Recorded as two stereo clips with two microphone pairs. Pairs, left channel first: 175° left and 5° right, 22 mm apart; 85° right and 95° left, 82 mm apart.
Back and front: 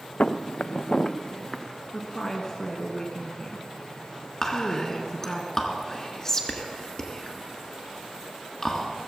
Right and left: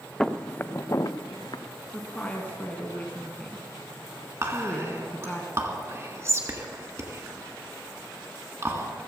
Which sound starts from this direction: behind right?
A woman speaking, at 1.9 s.